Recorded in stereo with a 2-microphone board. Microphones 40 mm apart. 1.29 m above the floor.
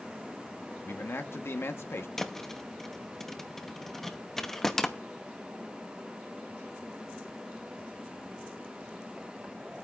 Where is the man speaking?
75° left (ahead or behind), 1.1 m.